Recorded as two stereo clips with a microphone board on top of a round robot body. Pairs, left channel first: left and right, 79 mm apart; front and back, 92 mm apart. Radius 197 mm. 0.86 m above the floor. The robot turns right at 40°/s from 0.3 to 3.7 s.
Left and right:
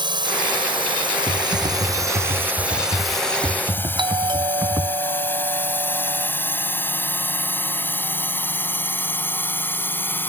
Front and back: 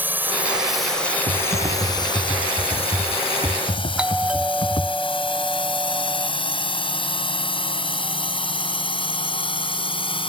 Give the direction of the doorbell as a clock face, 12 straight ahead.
3 o'clock.